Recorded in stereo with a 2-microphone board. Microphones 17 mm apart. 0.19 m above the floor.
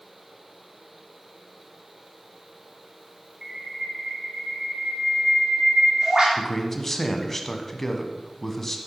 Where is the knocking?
I don't hear knocking.